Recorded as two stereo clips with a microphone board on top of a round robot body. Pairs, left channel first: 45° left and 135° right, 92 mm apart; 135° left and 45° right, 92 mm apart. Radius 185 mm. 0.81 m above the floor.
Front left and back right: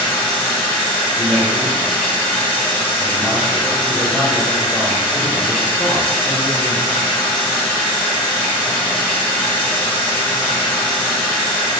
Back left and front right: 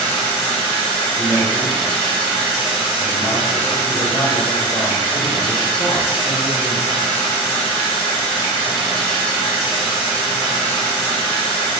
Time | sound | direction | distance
0.0 | running water | 120° left | 1.3 m
1.1 | a man speaking | 130° left | 1.7 m